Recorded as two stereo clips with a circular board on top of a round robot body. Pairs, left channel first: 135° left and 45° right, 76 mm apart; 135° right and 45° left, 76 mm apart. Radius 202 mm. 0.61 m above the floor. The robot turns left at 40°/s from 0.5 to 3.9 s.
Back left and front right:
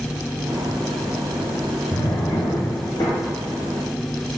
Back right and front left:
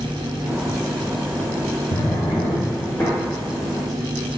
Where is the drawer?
160° right, 0.6 m; by 3.1 s 150° left, 0.6 m.